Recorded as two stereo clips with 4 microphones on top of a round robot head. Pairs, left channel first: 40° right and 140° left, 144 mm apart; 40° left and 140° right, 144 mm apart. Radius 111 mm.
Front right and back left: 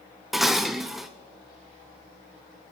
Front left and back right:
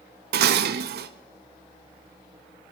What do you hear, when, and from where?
0.3 s dishes clattering: 135° right, 0.7 m